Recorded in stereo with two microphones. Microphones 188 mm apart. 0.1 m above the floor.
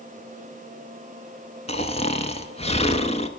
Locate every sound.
1.7 s snoring: 35° left (ahead or behind), 0.9 m